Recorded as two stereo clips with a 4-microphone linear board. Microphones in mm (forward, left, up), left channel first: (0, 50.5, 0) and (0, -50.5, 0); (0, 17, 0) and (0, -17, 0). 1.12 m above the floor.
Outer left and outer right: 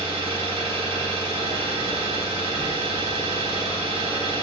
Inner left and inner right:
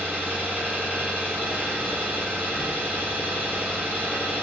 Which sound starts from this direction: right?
An engine running, at 0.0 s.